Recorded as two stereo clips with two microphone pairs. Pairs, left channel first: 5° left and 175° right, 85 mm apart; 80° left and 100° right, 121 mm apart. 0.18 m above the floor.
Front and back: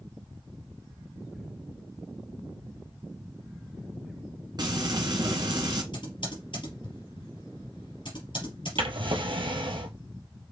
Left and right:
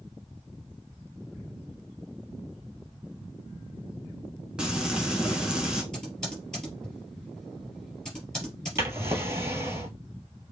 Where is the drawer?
170° right, 1.2 m.